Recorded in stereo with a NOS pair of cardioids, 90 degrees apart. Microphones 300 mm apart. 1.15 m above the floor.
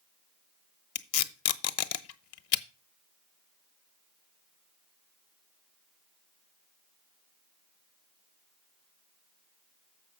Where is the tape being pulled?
60° left, 0.9 m.